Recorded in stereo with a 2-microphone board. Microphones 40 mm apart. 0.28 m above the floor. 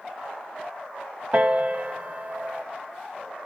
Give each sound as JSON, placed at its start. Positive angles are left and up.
{"t": 1.3, "sound": "a piano", "side_deg": -45, "distance_m": 1.0}